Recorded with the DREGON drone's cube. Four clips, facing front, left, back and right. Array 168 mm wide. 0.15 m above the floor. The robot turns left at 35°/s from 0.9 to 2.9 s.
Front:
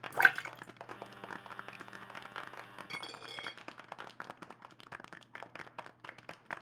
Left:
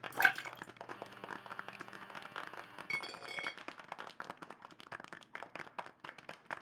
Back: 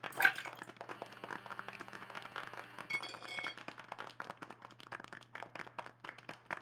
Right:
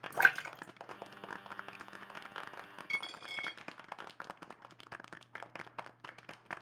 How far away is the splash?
About 1.3 m.